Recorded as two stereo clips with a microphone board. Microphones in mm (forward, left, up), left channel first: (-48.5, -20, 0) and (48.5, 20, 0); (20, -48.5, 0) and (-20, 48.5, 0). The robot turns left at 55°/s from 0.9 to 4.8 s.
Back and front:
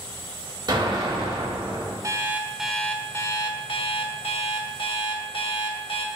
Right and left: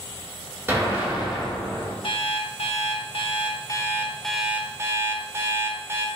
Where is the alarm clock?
30° right, 0.9 m; by 6.1 s 175° left, 0.9 m.